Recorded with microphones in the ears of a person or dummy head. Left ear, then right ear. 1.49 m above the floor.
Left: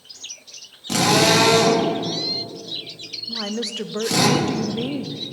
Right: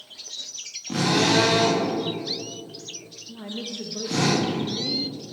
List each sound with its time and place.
0.9 s a drill: 85° left, 3.5 m
3.3 s a woman speaking: 45° left (ahead or behind), 0.6 m